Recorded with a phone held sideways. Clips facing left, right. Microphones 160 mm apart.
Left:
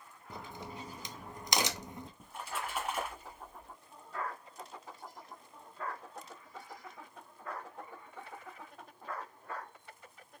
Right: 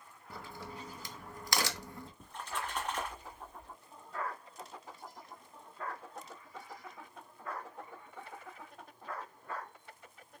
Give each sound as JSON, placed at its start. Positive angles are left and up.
{"t": 0.3, "sound": "a crack", "side_deg": 20, "distance_m": 0.5}
{"t": 2.2, "sound": "a splash", "side_deg": 10, "distance_m": 1.4}